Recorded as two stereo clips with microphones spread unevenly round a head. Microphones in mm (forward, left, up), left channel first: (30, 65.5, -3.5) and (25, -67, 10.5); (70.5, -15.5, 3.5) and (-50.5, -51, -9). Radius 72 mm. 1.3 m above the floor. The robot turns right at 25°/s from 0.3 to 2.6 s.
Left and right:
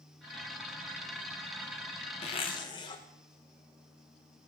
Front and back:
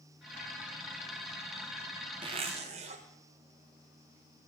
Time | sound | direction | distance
2.2 | a zipper | 140° left | 0.6 m